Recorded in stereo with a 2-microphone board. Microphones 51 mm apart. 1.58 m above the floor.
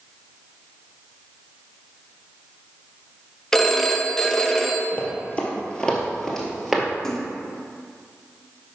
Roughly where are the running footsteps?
Left.